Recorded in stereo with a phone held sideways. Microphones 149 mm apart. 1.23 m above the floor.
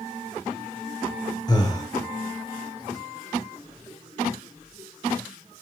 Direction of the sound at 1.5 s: 25° left (ahead or behind).